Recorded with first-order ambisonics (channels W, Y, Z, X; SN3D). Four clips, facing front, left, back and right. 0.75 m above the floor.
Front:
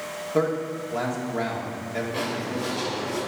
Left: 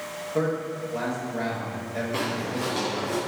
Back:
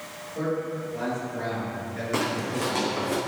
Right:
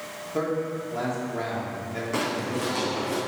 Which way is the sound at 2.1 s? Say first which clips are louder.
Right 3 dB, back 1 dB; 150° right.